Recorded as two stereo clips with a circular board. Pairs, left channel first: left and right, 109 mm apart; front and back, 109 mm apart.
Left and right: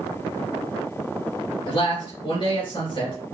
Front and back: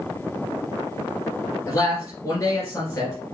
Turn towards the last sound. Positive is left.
turn(degrees=60)